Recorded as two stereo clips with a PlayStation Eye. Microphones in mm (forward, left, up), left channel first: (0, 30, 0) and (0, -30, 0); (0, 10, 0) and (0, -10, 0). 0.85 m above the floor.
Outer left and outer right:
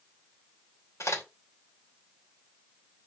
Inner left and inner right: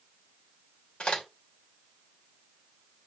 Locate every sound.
1.0 s a crack: 55° left (ahead or behind), 3 m